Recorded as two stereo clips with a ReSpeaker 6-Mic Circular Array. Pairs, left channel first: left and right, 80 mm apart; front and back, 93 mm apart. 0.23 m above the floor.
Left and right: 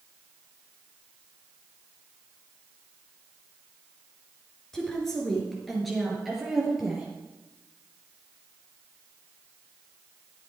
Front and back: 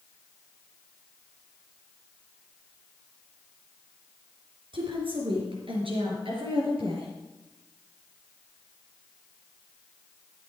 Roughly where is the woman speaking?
Behind.